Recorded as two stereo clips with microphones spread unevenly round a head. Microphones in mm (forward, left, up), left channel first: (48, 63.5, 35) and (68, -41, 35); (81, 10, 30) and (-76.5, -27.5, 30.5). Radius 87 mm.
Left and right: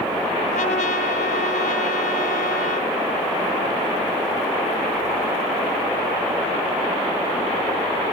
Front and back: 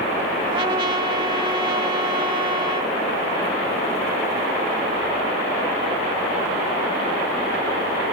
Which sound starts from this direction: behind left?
A trumpet, at 0.5 s.